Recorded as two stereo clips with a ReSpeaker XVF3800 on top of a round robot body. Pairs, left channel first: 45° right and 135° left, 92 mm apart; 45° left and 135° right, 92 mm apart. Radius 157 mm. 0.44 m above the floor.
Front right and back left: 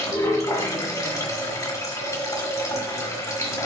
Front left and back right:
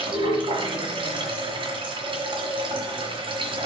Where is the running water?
100° right, 1.9 m.